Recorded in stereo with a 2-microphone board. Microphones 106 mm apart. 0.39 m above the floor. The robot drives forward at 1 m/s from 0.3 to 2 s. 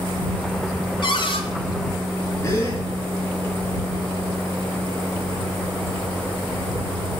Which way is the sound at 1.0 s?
50° left (ahead or behind).